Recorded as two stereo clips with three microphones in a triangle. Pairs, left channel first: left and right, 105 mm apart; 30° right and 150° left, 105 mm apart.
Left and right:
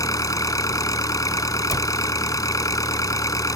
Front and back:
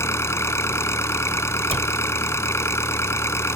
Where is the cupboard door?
145° left.